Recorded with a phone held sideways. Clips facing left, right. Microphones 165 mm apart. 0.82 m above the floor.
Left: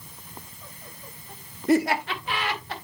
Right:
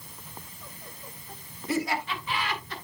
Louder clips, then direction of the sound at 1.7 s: Left 7 dB; 60° left (ahead or behind).